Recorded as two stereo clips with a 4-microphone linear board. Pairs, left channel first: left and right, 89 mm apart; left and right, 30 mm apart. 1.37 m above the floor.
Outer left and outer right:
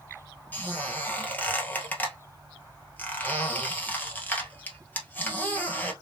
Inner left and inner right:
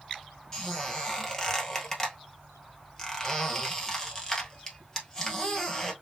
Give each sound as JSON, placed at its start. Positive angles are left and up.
{"t": 0.5, "sound": "a squeak", "side_deg": 15, "distance_m": 1.5}